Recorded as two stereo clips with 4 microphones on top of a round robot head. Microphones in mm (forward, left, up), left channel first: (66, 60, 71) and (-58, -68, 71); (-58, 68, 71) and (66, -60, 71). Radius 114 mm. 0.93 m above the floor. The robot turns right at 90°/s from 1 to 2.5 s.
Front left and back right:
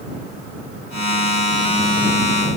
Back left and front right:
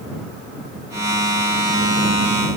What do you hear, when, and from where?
Only background noise.